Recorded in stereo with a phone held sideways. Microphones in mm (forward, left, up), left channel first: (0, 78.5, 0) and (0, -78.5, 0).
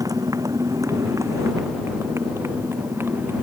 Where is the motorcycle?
20° right (ahead or behind); by 3.4 s 15° right (ahead or behind).